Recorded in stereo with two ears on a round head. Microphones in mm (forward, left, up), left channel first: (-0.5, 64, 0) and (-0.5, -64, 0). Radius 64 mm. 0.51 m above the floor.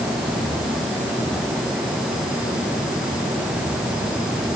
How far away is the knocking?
No knocking in this recording.